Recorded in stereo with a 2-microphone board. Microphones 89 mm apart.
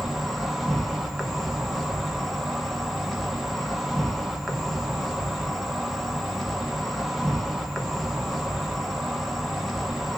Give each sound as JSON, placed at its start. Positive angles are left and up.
{"t": 0.0, "sound": "an insect", "side_deg": 0, "distance_m": 0.8}